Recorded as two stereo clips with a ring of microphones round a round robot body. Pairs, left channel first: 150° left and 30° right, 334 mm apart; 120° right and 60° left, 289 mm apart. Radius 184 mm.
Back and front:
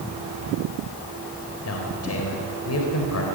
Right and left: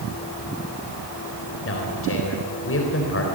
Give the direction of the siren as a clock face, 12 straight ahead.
I don't hear a siren.